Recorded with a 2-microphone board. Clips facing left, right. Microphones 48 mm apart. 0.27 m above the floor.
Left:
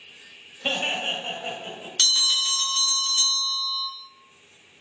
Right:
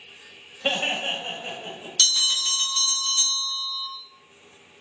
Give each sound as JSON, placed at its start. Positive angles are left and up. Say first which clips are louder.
{"t": 0.6, "sound": "laughter", "louder": "right 1 dB", "side_deg": -15, "distance_m": 1.2}
{"t": 2.0, "sound": "a bell", "louder": "even", "side_deg": 25, "distance_m": 1.7}